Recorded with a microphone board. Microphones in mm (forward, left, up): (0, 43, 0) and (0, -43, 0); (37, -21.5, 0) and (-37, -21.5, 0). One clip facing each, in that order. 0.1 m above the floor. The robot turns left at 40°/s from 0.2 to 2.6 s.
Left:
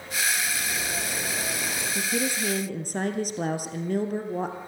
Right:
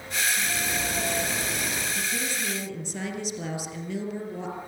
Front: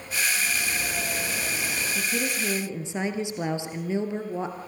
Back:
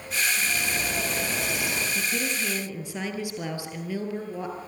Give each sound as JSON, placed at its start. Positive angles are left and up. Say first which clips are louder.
{"t": 0.4, "sound": "a bird", "louder": "right 1 dB, even", "azimuth_deg": -110, "distance_m": 6.5}
{"t": 1.9, "sound": "a woman speaking", "louder": "left 3 dB, front 1 dB", "azimuth_deg": 90, "distance_m": 2.0}